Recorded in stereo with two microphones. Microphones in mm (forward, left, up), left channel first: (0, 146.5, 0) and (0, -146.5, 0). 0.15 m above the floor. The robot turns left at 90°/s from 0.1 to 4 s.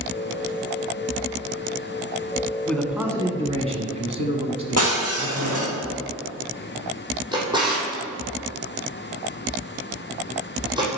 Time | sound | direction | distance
2.7 | a man speaking | 5° left (ahead or behind) | 1.1 m
4.8 | breaking glass | 50° right (ahead or behind) | 3 m
7.3 | a drawer | 15° right (ahead or behind) | 2.5 m